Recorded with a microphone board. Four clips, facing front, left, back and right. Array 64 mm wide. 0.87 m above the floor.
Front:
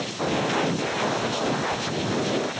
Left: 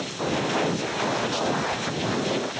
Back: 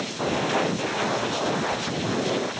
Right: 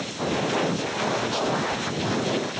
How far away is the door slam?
No door slam in this recording.